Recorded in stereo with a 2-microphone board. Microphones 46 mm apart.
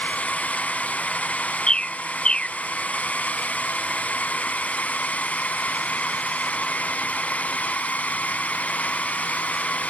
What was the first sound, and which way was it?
A drone, 35° left (ahead or behind).